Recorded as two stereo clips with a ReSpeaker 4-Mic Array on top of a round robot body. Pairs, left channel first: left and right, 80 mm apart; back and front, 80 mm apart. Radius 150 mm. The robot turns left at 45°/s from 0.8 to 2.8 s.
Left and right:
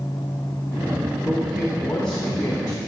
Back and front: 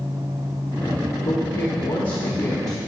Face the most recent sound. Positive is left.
turn(degrees=135)